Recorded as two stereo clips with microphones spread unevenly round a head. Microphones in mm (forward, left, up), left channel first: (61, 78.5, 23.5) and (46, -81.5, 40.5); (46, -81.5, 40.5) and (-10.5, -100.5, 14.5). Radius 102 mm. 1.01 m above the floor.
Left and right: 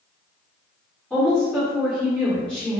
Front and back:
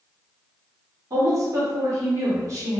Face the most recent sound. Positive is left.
turn(degrees=170)